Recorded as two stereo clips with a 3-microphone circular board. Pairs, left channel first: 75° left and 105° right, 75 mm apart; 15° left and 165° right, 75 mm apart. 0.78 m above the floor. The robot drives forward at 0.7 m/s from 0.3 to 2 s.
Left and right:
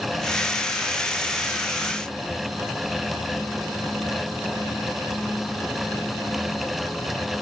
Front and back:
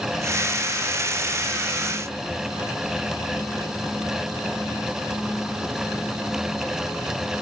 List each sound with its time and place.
Only background noise.